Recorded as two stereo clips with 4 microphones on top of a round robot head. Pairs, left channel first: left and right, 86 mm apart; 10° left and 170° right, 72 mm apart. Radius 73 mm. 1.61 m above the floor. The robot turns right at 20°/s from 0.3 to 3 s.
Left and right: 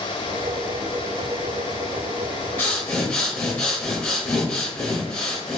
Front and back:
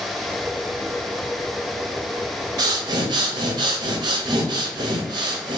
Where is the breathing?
160° left, 0.5 m; by 5.6 s 170° left, 0.5 m.